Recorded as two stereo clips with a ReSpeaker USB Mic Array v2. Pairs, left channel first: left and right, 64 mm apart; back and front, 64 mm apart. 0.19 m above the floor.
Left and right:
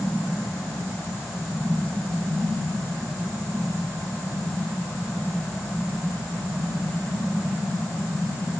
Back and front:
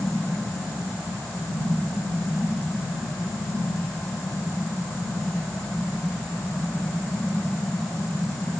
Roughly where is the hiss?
No hiss in this recording.